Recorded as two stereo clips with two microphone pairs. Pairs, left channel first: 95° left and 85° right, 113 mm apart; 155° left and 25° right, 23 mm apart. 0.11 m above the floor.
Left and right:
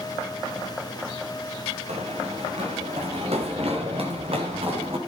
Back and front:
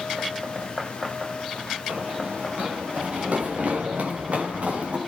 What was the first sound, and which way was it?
Running footsteps, 65° right.